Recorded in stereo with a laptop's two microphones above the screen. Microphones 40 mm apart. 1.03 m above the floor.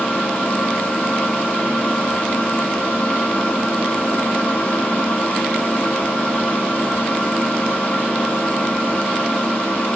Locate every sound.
0.0 s a machine running: 30° left (ahead or behind), 0.7 m